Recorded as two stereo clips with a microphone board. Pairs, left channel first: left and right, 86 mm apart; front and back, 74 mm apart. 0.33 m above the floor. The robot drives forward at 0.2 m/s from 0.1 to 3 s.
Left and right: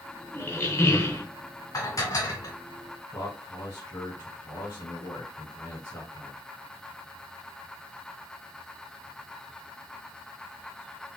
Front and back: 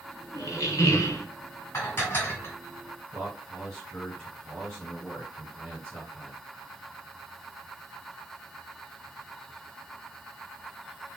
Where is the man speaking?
70° left, 1.8 m.